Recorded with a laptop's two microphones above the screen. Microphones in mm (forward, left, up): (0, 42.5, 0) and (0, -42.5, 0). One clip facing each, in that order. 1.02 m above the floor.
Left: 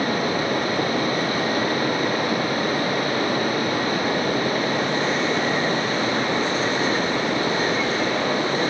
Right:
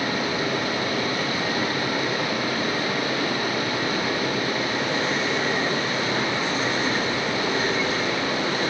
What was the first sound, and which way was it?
Running water, 40° left (ahead or behind).